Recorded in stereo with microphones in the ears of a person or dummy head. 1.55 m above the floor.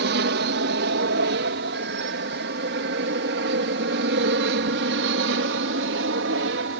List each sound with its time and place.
0.0 s an aircraft: 60° right (ahead or behind); by 6.8 s 65° right (ahead or behind)